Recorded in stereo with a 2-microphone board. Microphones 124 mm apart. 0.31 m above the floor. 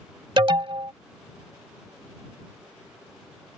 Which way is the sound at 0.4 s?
40° right (ahead or behind).